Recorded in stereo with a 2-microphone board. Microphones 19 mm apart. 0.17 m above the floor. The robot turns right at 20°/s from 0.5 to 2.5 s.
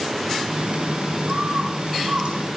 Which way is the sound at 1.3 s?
85° right.